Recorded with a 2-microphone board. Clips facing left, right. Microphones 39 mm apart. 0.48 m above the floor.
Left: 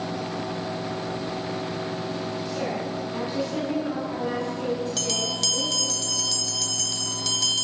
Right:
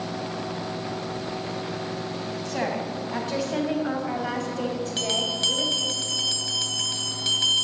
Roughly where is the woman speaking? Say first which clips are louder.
Right 4 dB; right.